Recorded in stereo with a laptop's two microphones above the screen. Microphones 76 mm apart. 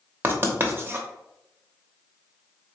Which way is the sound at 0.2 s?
30° right (ahead or behind).